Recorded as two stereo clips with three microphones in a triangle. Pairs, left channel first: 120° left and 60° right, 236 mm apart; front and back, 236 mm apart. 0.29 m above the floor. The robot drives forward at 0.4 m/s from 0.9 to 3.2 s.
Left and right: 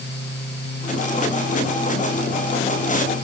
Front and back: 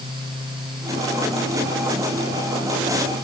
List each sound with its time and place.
Only background noise.